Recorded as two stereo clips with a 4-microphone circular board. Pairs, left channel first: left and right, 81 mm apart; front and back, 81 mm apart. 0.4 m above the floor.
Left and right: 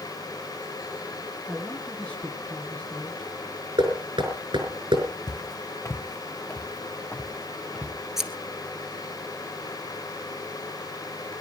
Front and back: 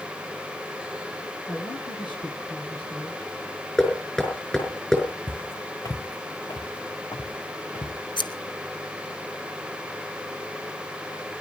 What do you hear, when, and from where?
1.5 s a man speaking: 15° left, 5.5 m
3.8 s knocking: 80° right, 5 m
5.3 s footsteps: 70° left, 1.2 m; by 8.0 s 10° left, 3.5 m
8.2 s scissors: 5° right, 1.3 m